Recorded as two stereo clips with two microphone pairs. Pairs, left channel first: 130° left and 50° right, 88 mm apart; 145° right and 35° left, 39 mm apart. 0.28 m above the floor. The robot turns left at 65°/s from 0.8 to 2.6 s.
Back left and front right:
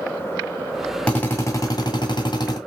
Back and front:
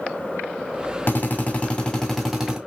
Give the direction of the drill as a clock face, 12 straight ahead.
5 o'clock.